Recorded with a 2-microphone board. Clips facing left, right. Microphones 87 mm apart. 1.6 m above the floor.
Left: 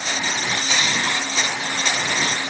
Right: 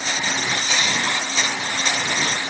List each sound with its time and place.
Only background noise.